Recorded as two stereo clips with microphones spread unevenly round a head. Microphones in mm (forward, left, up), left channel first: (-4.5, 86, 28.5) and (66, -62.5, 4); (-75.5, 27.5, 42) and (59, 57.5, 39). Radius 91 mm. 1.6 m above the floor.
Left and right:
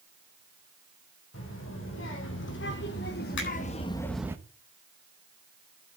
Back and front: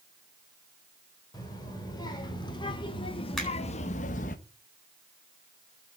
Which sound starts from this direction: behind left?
A child speaking, at 1.3 s.